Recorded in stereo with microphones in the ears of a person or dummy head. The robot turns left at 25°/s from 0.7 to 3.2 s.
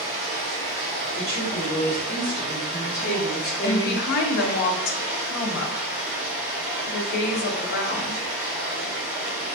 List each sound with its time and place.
0.0 s running water: 105° right, 0.8 m; by 9.6 s 170° right, 0.8 m
1.1 s a woman speaking: 155° left, 1.1 m; by 4.0 s 105° left, 1.1 m
3.6 s a woman speaking: 60° left (ahead or behind), 0.5 m